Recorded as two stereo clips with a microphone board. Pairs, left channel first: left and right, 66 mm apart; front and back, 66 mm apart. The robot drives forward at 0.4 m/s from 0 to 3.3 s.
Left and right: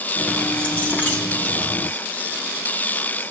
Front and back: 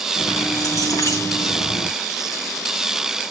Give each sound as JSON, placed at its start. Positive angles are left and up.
{"t": 0.2, "sound": "keys jangling", "azimuth_deg": 20, "distance_m": 3.5}